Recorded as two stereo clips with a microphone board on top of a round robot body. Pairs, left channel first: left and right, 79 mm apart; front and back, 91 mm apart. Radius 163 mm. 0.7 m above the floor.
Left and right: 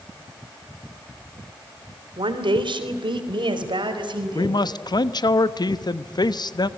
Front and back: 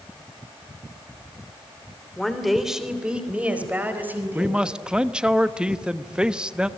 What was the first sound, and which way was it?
A woman speaking, 90° right.